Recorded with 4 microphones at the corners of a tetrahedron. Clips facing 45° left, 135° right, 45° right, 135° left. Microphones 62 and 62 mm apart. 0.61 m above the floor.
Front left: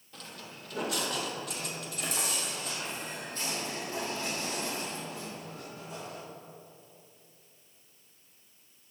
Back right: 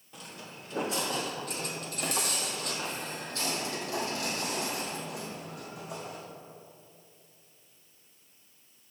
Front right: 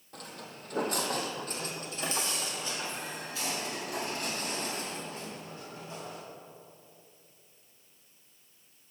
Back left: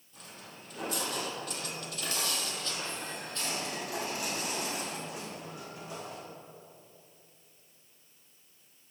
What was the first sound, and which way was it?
Footsteps, 60° right.